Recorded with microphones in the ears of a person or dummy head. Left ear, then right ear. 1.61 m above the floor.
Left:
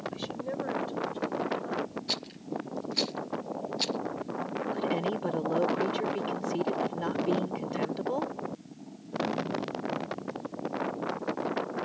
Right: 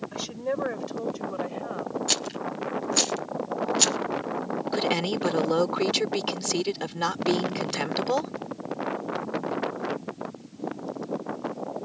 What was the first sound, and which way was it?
A woman speaking, 45° right (ahead or behind).